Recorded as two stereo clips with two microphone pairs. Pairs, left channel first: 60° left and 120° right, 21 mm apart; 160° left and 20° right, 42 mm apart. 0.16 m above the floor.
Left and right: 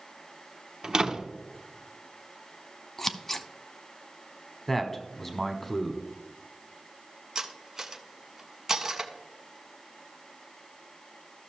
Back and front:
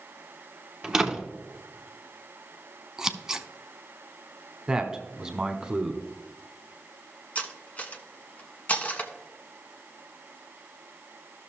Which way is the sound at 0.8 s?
90° right.